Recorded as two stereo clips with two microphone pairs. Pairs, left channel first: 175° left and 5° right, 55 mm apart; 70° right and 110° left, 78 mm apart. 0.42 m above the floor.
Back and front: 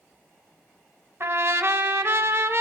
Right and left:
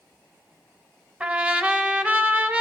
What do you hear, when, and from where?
1.2 s a trumpet: 35° left, 0.7 m